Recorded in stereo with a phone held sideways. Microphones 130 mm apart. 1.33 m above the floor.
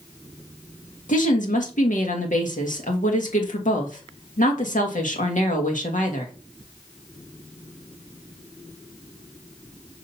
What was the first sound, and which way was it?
A woman speaking, 80° left.